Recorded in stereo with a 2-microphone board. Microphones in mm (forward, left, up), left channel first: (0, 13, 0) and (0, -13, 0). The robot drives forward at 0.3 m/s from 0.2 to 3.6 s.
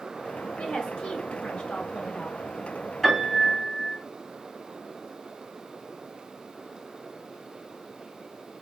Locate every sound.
0.6 s a woman speaking: 50° left (ahead or behind), 1.6 m; by 2.4 s 45° left (ahead or behind), 1.7 m
3.0 s a piano: 5° left (ahead or behind), 3 m